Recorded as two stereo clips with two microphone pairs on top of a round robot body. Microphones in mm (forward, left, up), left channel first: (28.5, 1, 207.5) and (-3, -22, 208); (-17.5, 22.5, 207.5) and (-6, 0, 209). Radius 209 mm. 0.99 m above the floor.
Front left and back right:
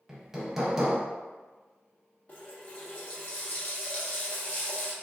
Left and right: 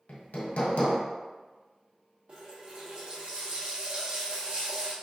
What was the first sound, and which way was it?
Hammering, 135° left.